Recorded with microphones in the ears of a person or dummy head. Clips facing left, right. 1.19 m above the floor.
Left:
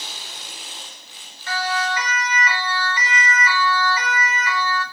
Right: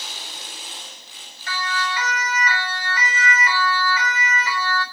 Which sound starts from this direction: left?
A siren, at 1.5 s.